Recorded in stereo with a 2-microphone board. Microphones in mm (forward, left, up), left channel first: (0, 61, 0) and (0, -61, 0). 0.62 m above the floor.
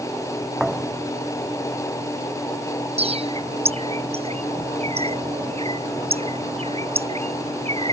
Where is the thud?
5° right (ahead or behind).